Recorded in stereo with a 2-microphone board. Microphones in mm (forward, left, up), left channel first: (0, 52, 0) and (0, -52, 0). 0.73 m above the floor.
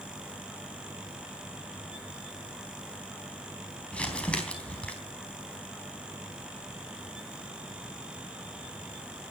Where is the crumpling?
10° left (ahead or behind), 3.5 m.